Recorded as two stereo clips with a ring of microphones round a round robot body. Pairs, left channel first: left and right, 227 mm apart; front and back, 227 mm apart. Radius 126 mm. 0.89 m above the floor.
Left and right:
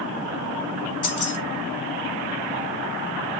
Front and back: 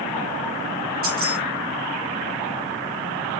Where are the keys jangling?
125° left, 4.5 m.